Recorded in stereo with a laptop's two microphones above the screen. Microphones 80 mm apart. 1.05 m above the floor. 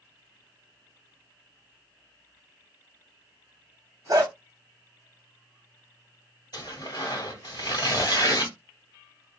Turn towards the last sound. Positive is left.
turn(degrees=55)  # may be behind; listen again after turning